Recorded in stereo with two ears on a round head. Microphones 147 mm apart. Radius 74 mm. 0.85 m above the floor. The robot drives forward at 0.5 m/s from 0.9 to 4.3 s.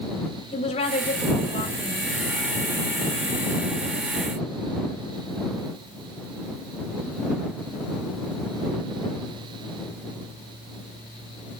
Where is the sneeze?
No sneeze in this recording.